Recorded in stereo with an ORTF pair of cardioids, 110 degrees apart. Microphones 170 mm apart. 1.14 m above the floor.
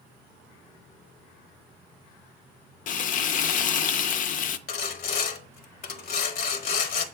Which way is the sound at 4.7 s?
65° left.